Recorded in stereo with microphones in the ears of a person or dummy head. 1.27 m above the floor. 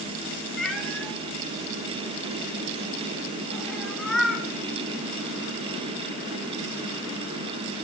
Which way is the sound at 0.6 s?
5° left (ahead or behind).